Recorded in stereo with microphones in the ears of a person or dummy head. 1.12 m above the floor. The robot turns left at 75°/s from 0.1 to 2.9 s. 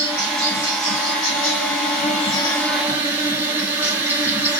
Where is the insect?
160° right, 2.5 m; by 4.6 s 10° right, 2.5 m.